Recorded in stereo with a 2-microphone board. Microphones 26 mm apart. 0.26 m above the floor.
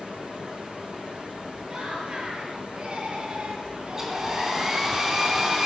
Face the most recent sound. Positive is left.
turn(degrees=-20)  # may be behind; listen again after turning